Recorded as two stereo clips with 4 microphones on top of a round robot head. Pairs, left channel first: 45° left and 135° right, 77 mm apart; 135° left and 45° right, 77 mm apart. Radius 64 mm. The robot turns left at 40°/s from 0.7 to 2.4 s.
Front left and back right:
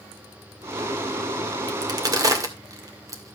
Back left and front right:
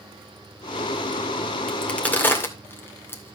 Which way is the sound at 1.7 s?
140° right.